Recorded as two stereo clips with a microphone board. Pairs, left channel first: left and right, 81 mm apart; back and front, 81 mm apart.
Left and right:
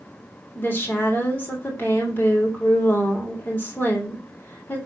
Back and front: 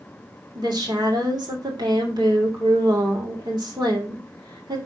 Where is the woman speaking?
30° left, 2.5 m.